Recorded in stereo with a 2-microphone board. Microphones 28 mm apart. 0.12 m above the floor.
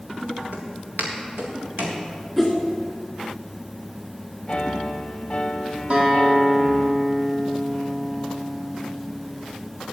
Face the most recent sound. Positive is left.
turn(degrees=-35)  # may be behind; listen again after turning